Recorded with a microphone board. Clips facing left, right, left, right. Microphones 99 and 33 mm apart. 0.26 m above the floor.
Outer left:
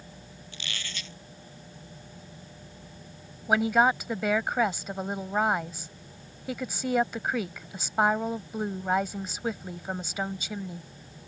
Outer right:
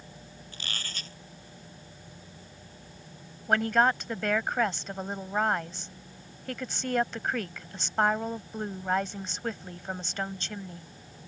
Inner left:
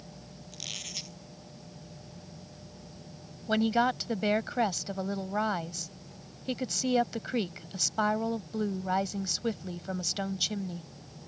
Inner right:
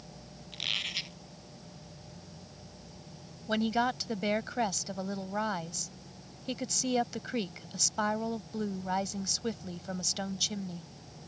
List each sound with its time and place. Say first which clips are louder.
0.5 s a squeak: outer left 1 dB, inner right 8 dB; 40° right (ahead or behind)
3.5 s a woman speaking: outer left 2 dB, inner left 3 dB; 10° left (ahead or behind)